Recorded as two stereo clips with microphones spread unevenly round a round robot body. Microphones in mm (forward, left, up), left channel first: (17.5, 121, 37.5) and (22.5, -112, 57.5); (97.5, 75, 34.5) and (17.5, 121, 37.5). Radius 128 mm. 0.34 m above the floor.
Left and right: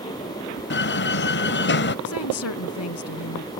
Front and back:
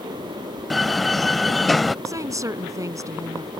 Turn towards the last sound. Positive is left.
turn(degrees=95)